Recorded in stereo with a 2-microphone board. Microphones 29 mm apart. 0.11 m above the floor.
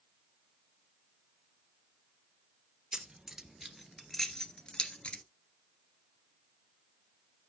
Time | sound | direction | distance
2.9 | keys jangling | 20° right (ahead or behind) | 1.8 m